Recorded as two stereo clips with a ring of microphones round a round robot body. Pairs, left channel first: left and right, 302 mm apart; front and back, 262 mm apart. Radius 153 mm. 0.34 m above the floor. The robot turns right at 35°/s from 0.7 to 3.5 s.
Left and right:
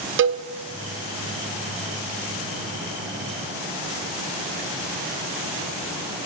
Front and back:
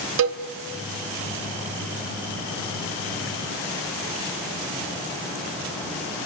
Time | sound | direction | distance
0.2 | a cowbell | 140° right | 1.1 m